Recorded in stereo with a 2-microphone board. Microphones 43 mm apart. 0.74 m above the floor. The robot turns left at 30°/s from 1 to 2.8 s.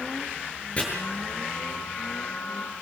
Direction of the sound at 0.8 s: 30° left (ahead or behind).